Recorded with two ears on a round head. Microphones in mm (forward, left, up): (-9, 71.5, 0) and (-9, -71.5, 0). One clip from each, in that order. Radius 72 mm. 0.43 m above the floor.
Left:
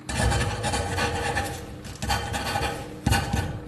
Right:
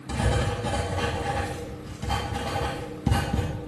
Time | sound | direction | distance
0.1 | writing | 60° left (ahead or behind) | 1.1 m